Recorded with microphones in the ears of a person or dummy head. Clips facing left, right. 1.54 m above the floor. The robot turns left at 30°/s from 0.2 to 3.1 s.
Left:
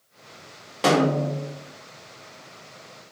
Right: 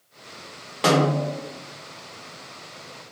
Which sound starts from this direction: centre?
A snare drum, at 0.8 s.